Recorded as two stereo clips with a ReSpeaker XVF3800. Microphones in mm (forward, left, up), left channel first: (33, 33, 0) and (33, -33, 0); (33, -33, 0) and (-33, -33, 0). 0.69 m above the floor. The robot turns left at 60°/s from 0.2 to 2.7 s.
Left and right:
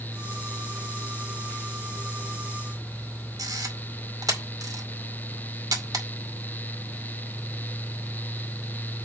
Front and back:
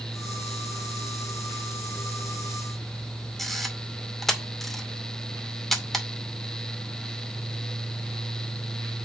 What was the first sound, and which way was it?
A camera shutter, 85° right.